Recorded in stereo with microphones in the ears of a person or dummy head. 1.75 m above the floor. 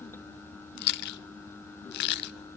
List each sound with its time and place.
0.8 s chewing: 60° left (ahead or behind), 0.6 m